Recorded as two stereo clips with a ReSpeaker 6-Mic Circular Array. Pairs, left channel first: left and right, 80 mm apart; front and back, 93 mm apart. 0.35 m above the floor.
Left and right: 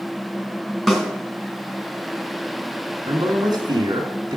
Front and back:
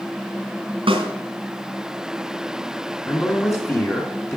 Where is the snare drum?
Straight behind, 2.5 m.